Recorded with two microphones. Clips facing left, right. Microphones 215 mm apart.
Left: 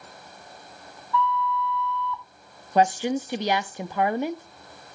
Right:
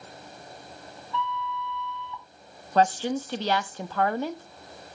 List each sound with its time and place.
1.1 s a flute: 30° right (ahead or behind), 2 m
2.8 s a woman speaking: 15° left (ahead or behind), 0.6 m